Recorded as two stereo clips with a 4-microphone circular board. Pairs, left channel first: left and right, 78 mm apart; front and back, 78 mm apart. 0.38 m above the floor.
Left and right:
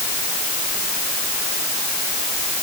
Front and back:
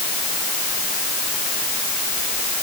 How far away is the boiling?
I don't hear boiling.